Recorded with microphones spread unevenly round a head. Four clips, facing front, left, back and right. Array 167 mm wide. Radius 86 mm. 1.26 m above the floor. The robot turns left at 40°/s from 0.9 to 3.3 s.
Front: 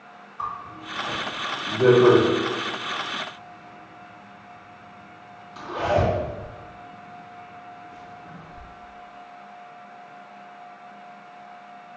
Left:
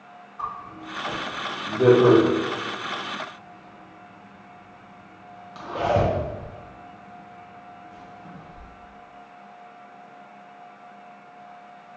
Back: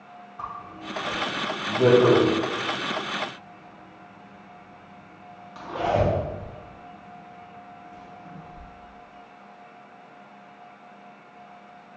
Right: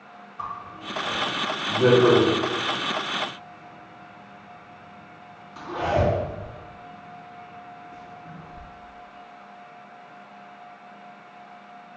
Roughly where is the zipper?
Behind.